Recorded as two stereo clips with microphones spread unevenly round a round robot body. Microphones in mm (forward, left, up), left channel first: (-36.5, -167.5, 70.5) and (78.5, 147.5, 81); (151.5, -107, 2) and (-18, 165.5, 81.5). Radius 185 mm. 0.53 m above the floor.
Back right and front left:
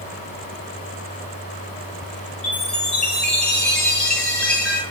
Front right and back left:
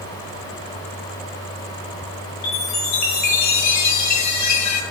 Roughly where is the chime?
Ahead right.